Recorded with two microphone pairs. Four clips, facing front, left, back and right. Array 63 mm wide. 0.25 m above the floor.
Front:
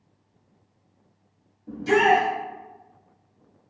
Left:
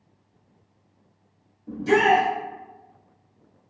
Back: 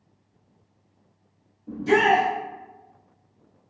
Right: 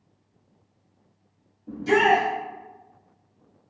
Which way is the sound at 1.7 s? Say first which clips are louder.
Left 1 dB, even; 25° left.